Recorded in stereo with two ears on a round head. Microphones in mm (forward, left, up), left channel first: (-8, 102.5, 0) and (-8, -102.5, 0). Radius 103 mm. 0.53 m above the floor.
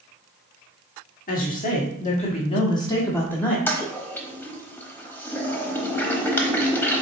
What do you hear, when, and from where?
1.3 s a woman speaking: 35° left (ahead or behind), 1.4 m; by 3.6 s 5° left (ahead or behind), 1.4 m
3.7 s a toilet flushing: 10° left (ahead or behind), 0.8 m